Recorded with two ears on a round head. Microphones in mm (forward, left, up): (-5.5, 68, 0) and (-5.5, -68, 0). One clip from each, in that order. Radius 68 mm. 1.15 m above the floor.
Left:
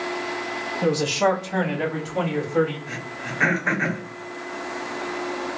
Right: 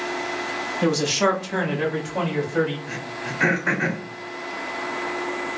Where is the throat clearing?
5° left (ahead or behind), 1.1 m.